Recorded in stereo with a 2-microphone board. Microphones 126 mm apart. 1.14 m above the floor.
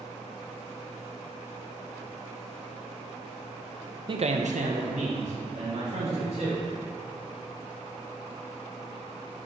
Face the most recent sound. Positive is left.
turn(degrees=-55)  # may be behind; listen again after turning